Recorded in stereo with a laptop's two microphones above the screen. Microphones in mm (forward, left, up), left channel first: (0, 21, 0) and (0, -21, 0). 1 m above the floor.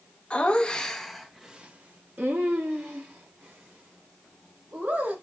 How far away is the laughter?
About 0.9 m.